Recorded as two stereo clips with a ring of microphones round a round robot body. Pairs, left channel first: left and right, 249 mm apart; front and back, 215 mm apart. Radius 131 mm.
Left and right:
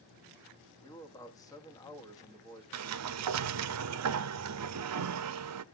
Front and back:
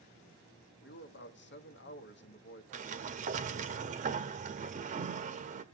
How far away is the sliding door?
About 0.6 m.